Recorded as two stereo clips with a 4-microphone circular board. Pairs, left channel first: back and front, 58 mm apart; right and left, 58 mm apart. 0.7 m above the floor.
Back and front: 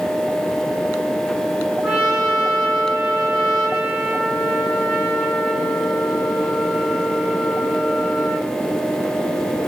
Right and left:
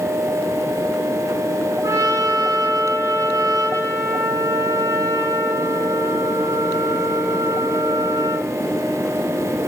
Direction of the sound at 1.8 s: 85° left.